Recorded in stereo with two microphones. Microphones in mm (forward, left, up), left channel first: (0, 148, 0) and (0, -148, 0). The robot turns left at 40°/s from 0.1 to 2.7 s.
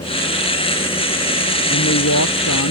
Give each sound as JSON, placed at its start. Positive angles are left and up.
{"t": 1.7, "sound": "a woman speaking", "azimuth_deg": 125}